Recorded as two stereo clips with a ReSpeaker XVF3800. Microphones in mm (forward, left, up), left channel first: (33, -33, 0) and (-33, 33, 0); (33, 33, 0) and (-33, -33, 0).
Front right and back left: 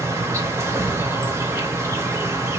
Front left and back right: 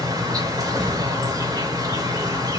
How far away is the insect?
About 1.0 m.